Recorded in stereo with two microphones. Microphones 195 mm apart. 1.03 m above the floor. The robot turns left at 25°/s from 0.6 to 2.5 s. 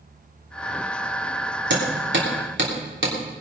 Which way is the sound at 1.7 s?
70° right (ahead or behind).